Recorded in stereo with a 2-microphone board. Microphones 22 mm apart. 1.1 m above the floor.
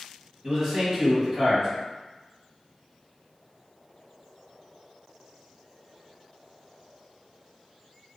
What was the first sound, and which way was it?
A man speaking, 10° right (ahead or behind).